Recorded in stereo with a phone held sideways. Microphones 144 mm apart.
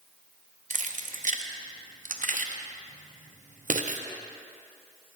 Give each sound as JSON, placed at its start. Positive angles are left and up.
{"t": 0.7, "sound": "keys jangling", "side_deg": -70, "distance_m": 0.5}